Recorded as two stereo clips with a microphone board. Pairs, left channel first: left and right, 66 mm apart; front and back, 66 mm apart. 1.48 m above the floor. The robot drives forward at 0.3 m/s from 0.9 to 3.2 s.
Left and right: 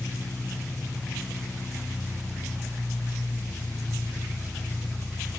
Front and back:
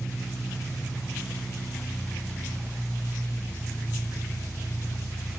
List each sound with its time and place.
0.0 s an engine running: 140° left, 1.4 m; by 5.4 s 160° left, 1.9 m